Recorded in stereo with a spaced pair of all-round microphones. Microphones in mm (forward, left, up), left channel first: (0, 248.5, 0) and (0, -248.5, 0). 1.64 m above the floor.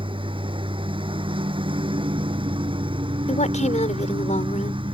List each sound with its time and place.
0.0 s a lawn mower: 10° right (ahead or behind)
3.3 s a woman speaking: 15° left (ahead or behind)